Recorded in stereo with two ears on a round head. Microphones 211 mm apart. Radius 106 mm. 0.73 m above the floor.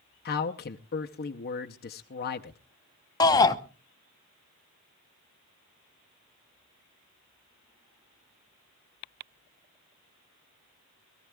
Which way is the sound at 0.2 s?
45° left (ahead or behind).